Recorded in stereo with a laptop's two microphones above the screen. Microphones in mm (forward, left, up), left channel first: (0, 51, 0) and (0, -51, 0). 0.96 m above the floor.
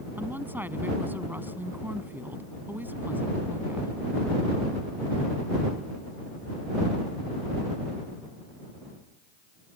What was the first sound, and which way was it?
A woman speaking, 20° right (ahead or behind).